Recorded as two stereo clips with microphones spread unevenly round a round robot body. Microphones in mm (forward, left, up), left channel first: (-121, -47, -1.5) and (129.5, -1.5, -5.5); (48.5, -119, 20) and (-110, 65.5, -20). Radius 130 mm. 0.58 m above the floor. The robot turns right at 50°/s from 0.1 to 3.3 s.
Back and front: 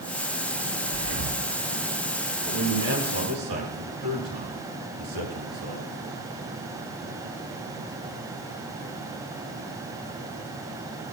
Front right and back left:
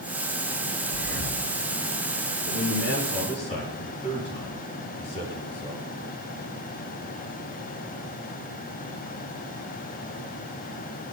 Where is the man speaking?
20° right, 8 m; by 5.9 s 20° left, 8 m.